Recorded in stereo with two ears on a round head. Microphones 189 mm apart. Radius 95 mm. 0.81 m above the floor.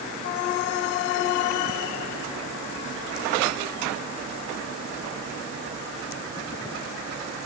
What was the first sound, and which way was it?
Only background noise.